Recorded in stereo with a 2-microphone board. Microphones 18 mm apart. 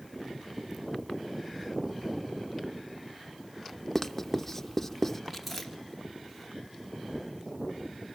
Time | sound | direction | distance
4.0 | writing | 20° left (ahead or behind) | 0.8 m
5.3 | chewing | centre (ahead or behind) | 2.5 m